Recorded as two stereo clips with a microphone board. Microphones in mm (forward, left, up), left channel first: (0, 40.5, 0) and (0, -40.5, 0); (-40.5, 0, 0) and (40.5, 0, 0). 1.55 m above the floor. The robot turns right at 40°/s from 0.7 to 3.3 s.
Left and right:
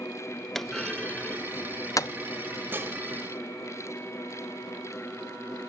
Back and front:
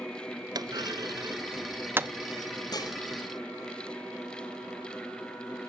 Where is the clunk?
5° left, 0.5 m; by 2.1 s 60° left, 0.5 m.